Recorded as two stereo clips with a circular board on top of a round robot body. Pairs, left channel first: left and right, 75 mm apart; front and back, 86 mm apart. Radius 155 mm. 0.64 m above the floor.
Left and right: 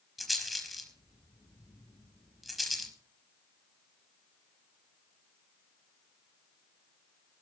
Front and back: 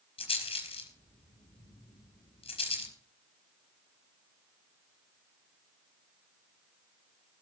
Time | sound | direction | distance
0.2 | a rattle | straight ahead | 4.5 m